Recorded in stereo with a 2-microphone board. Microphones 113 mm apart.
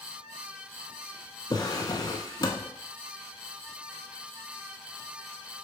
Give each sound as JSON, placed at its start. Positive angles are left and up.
{"t": 1.5, "sound": "a drawer", "side_deg": 40, "distance_m": 0.5}